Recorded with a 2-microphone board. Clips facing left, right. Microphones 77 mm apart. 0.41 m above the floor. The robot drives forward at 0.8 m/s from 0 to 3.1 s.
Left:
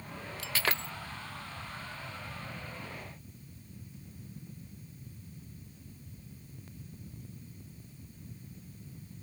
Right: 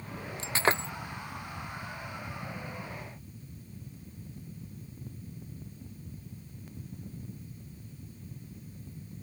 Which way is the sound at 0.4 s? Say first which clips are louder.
Right 6 dB; 25° right (ahead or behind).